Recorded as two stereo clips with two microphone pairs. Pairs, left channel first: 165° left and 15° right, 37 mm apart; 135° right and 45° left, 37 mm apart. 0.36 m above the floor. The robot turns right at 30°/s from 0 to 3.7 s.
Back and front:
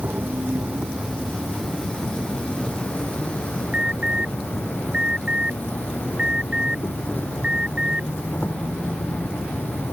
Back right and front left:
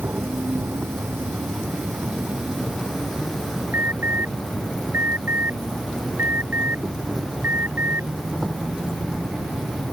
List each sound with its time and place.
0.0 s an insect: 25° left; by 9.9 s 135° left
3.7 s an alarm: 45° left